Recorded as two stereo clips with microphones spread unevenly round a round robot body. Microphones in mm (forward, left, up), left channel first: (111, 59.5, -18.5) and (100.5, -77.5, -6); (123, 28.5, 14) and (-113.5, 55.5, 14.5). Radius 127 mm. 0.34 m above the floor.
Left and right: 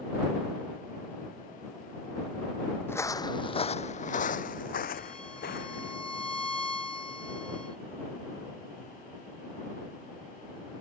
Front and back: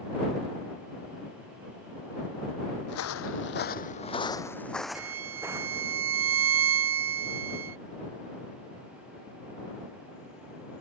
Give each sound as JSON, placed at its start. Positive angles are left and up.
{"t": 2.9, "sound": "footsteps", "azimuth_deg": 10}
{"t": 5.0, "sound": "a violin", "azimuth_deg": 170}